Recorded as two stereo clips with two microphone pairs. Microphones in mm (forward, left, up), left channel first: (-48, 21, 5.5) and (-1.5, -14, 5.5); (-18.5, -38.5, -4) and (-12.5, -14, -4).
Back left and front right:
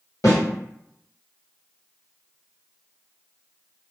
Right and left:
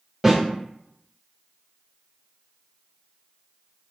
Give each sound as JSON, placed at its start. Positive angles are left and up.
{"t": 0.2, "sound": "a snare drum", "azimuth_deg": 145, "distance_m": 1.8}